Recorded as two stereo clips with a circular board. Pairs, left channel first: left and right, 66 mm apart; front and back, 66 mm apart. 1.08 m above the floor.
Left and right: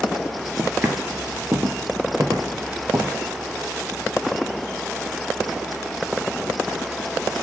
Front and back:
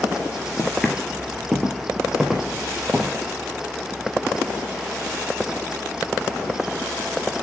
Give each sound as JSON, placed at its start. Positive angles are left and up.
{"t": 0.6, "sound": "footsteps", "azimuth_deg": -75, "distance_m": 1.2}